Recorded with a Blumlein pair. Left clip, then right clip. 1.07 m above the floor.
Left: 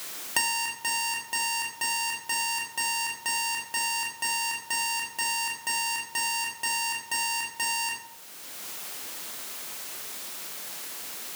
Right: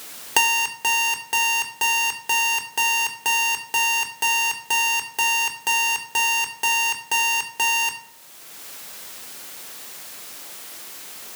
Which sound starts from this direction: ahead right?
An alarm clock, at 0.4 s.